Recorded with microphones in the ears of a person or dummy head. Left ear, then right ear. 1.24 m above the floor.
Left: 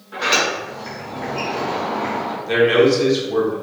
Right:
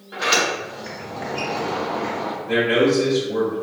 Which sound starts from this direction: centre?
A sliding door, at 0.1 s.